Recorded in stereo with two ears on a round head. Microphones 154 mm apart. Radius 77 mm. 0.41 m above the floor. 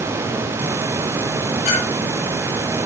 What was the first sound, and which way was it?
A clink, 60° left (ahead or behind).